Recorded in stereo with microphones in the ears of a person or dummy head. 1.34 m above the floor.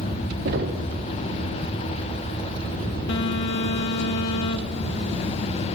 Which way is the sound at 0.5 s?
60° right (ahead or behind).